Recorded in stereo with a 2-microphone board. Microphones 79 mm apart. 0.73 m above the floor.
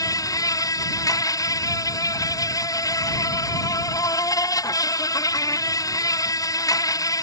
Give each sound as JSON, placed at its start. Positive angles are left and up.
{"t": 0.0, "sound": "an insect", "side_deg": 50}